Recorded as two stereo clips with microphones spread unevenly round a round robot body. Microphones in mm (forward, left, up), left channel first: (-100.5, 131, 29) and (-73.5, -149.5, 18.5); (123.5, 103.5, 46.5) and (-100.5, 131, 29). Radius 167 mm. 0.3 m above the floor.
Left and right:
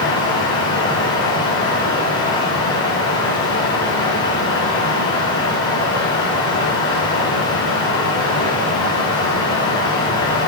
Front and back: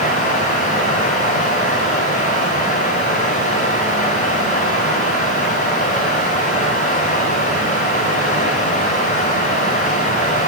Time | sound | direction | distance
0.0 | running water | 45° left | 8 m